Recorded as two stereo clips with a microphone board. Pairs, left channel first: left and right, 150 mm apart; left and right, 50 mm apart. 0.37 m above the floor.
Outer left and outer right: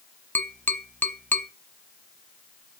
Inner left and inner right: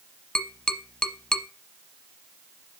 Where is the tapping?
10° left (ahead or behind), 0.9 m.